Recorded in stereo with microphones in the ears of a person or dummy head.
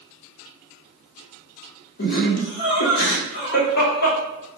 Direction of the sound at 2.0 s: 60° left (ahead or behind).